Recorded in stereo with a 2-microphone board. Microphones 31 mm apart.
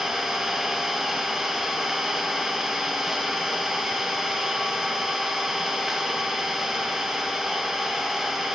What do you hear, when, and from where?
0.0 s an engine running: 15° right (ahead or behind), 1.2 m